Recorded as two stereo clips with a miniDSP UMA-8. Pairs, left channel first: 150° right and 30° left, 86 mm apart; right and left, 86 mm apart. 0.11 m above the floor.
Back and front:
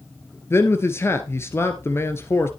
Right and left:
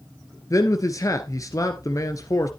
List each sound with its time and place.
0.5 s a man speaking: 110° right, 1.4 m